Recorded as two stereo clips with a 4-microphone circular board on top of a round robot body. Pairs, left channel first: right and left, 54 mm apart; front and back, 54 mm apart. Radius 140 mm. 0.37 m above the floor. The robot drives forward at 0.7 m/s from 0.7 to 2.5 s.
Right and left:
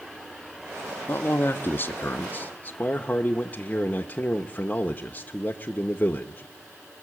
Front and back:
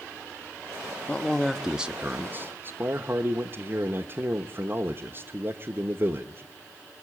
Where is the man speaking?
60° right, 1.0 m; by 6.4 s 145° right, 1.1 m.